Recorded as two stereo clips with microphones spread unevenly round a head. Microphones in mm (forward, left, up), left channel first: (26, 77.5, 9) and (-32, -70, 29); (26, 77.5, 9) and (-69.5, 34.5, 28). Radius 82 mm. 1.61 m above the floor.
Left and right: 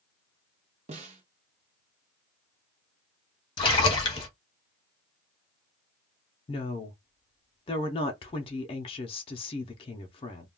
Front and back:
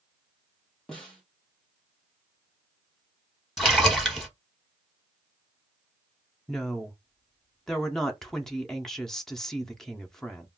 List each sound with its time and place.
0.9 s a snare drum: 65° right, 0.8 m
3.6 s a splash: 125° left, 1.1 m
6.5 s a woman speaking: 120° left, 0.5 m